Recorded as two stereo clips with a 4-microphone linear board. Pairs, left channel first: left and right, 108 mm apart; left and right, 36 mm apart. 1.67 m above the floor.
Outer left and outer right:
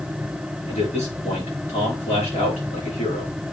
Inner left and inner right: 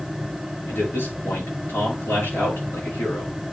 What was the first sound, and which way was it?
A man speaking, 90° left.